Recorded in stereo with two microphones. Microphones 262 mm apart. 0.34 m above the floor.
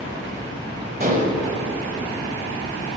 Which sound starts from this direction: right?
Dishes clattering, at 1.0 s.